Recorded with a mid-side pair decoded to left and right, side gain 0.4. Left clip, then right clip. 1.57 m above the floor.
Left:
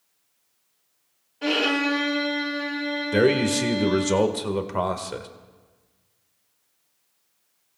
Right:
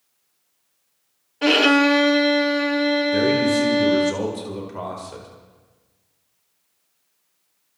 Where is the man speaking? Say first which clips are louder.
Right 2 dB; 65° left, 1.8 m.